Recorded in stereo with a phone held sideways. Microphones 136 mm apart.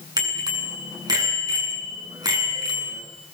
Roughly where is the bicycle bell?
Right.